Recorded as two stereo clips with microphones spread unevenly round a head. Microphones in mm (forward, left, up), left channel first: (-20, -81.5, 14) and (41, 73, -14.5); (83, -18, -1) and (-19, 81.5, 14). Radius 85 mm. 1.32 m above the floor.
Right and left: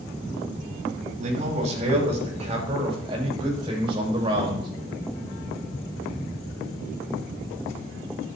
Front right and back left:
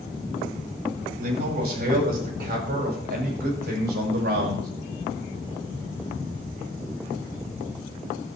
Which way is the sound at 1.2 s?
120° left.